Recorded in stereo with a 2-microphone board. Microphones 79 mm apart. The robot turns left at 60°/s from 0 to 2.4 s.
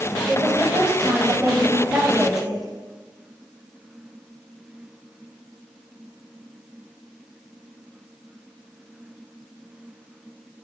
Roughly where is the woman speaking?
Ahead right.